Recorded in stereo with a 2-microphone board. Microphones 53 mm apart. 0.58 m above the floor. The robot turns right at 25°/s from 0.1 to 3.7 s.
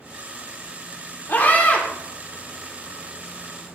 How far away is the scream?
About 1.5 m.